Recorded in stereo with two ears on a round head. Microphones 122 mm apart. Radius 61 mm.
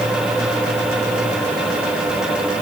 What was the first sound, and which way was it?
Only background noise.